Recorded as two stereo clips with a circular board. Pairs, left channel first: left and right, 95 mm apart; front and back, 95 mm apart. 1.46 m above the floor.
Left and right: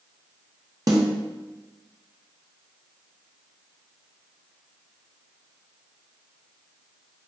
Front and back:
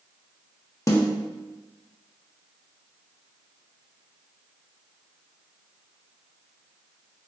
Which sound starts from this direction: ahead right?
A snare drum, at 0.9 s.